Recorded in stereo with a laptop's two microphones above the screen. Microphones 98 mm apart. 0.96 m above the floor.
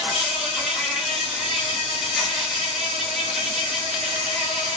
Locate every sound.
0.0 s an insect: 5° left (ahead or behind), 0.9 m